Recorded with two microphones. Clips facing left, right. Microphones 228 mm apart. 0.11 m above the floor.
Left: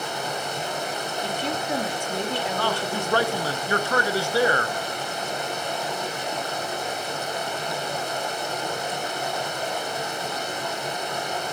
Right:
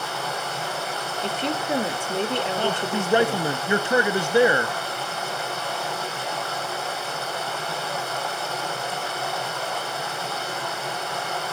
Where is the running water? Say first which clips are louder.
Left 1 dB; 15° left (ahead or behind), 4 m.